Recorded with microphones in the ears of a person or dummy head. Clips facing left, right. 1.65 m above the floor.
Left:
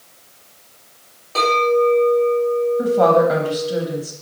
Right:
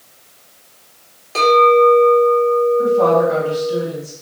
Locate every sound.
1.4 s a clink: 15° right (ahead or behind), 1.7 m
2.8 s a woman speaking: 75° left (ahead or behind), 0.7 m